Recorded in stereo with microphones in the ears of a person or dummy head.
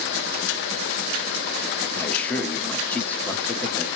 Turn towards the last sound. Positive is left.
turn(degrees=5)  # may be behind; listen again after turning